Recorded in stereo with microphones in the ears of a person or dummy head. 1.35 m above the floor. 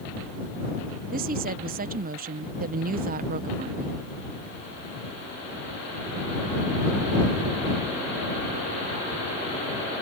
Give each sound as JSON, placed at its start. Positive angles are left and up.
{"t": 1.1, "sound": "a woman speaking", "side_deg": -45}